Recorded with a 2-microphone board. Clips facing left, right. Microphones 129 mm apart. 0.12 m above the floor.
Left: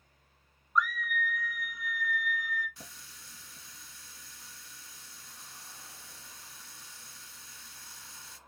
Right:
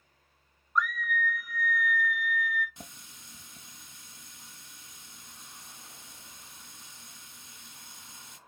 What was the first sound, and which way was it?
A scream, centre (ahead or behind).